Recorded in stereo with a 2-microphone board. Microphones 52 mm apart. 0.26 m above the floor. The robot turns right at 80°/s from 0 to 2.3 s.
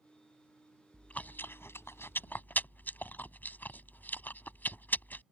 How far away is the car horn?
I don't hear a car horn.